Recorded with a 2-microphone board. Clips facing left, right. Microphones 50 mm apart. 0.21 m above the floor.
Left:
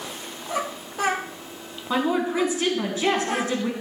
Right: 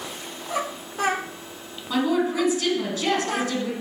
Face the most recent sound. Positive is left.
turn(degrees=25)  # may be behind; listen again after turning